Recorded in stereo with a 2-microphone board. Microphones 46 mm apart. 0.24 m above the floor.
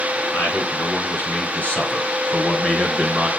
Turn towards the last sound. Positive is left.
turn(degrees=-5)  # may be behind; listen again after turning